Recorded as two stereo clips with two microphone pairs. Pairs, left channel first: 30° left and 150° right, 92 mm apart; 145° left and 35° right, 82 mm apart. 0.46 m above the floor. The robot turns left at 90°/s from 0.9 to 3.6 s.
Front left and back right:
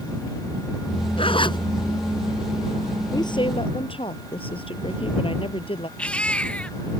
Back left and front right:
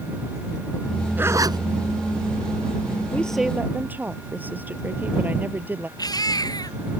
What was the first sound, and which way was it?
A zipper, 35° left.